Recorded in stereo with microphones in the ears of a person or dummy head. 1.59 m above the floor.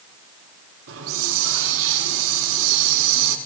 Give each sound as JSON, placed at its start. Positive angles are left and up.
{"t": 0.9, "sound": "a hiss", "side_deg": -75, "distance_m": 5.0}